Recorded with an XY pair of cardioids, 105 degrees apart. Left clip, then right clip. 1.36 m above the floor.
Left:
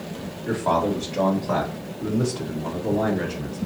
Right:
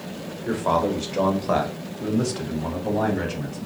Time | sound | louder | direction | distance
0.5 | a man speaking | even | 10° right | 1.1 m